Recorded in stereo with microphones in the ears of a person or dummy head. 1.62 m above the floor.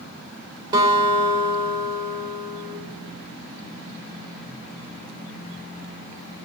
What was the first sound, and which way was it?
A guitar, 20° right (ahead or behind).